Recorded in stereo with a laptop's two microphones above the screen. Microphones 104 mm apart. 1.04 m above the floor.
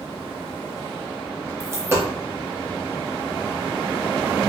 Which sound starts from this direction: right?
A dropped coin, at 1.6 s.